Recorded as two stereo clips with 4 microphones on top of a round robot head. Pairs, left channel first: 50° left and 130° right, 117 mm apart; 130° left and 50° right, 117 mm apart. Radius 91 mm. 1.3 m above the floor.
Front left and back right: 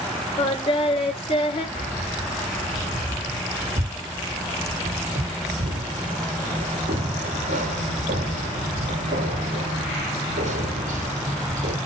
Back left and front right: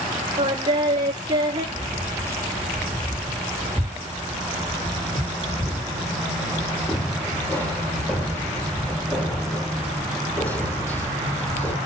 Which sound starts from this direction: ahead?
Singing, at 0.4 s.